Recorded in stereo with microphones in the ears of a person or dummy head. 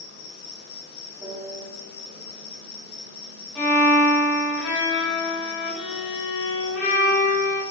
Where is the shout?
I don't hear a shout.